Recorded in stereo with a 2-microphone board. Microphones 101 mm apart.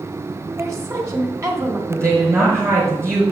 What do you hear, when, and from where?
0.6 s a woman speaking: 35° right (ahead or behind), 1.5 m
1.9 s a woman speaking: 30° right (ahead or behind), 4 m